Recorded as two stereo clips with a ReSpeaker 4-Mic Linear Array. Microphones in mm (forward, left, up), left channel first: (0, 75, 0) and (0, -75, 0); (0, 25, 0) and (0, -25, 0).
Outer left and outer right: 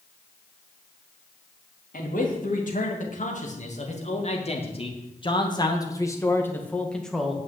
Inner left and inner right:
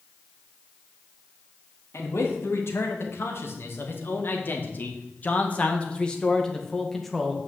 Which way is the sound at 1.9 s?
65° left (ahead or behind).